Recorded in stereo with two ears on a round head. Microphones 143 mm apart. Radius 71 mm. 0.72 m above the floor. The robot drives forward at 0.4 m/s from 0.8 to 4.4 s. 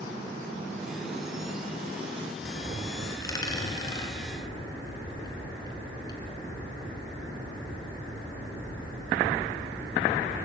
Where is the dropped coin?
20° left (ahead or behind), 3.5 m; by 6.2 s 25° left (ahead or behind), 3 m.